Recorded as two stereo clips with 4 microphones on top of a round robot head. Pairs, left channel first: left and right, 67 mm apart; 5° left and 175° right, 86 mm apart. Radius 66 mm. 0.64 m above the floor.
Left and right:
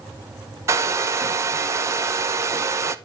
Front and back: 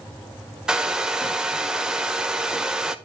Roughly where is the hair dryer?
Right.